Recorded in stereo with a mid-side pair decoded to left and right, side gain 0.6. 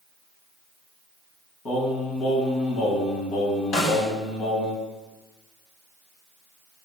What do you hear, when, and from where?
1.6 s singing: 60° left, 3.5 m
3.7 s a snare drum: 50° left, 3.5 m